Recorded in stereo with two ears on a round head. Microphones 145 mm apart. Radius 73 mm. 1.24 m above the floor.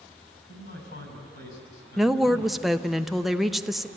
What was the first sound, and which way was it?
A man speaking, 75° left (ahead or behind).